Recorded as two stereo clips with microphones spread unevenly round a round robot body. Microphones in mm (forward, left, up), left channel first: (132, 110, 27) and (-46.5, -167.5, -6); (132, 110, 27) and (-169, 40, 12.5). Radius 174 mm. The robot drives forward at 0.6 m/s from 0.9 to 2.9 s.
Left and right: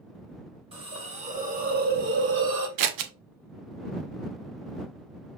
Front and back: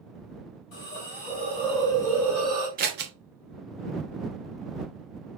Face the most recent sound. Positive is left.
turn(degrees=-110)